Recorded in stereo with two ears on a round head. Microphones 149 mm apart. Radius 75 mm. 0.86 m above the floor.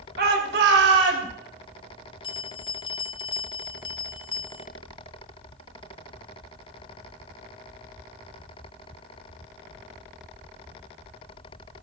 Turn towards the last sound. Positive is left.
turn(degrees=30)  # may be behind; listen again after turning